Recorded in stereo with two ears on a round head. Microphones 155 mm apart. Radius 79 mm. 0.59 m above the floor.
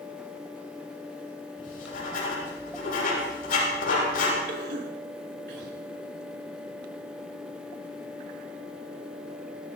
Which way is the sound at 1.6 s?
55° left (ahead or behind).